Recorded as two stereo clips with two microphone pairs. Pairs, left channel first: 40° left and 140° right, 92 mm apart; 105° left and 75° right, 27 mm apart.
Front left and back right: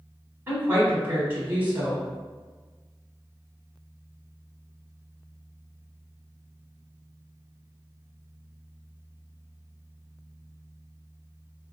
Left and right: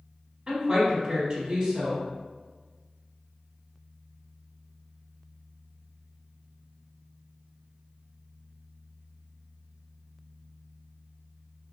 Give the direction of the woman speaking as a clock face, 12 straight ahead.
4 o'clock.